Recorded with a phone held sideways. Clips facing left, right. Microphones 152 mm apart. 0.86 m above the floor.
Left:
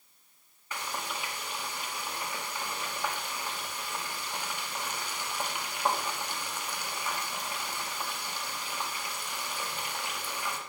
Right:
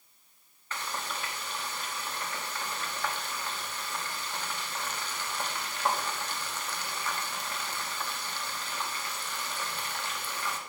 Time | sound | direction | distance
0.7 | frying | 10° left (ahead or behind) | 0.9 m